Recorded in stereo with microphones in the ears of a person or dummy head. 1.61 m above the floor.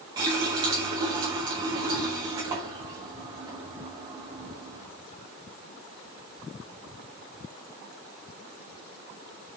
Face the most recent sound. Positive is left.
turn(degrees=-25)  # may be behind; listen again after turning